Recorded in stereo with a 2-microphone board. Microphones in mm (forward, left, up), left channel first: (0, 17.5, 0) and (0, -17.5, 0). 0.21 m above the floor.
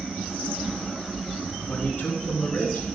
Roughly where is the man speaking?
Left.